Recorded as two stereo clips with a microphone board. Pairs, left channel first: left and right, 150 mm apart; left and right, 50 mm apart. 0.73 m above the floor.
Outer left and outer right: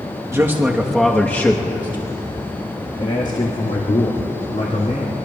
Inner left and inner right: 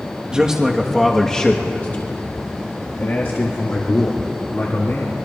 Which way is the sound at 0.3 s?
20° right (ahead or behind).